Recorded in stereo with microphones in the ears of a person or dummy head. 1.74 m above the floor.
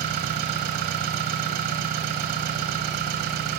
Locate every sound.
0.0 s an engine running: 50° right (ahead or behind), 1.0 m